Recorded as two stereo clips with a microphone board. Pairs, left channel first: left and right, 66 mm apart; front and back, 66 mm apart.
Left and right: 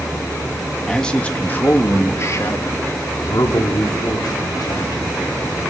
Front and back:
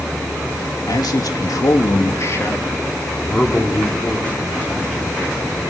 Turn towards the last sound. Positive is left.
turn(degrees=80)